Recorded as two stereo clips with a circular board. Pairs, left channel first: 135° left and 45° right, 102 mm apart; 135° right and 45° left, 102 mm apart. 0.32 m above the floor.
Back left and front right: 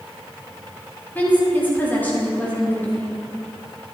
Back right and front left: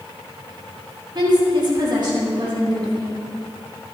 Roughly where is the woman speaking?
Left.